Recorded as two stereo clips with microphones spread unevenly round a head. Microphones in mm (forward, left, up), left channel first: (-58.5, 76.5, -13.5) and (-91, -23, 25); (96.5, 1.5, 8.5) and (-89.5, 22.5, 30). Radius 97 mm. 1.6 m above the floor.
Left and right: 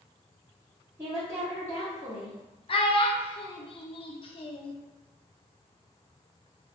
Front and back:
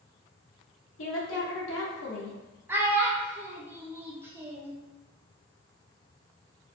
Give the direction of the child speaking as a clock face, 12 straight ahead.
8 o'clock.